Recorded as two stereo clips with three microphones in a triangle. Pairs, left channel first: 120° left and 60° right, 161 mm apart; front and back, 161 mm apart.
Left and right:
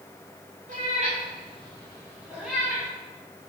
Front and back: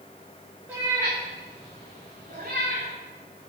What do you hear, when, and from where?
0.7 s a cat meowing: 100° right, 2.5 m; by 2.9 s 160° right, 2 m